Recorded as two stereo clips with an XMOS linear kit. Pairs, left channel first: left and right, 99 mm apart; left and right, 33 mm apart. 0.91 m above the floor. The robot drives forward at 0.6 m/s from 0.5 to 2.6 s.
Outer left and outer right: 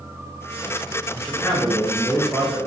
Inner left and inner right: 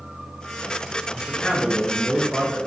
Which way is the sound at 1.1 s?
15° left (ahead or behind).